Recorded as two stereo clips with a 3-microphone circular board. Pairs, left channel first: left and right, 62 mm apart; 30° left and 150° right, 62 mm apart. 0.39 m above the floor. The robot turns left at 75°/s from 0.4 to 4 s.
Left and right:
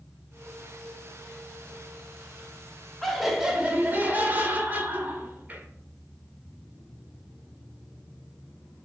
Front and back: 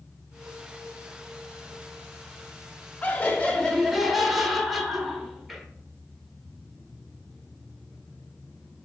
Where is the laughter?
10° left, 1.1 m; by 5.7 s 60° right, 1.1 m.